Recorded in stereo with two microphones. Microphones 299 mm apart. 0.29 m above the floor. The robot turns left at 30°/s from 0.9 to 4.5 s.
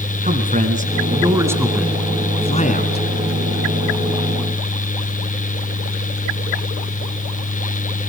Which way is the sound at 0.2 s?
155° right.